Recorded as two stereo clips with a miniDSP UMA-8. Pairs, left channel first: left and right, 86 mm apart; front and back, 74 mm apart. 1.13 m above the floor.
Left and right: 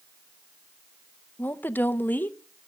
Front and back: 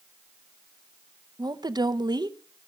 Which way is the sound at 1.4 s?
160° left.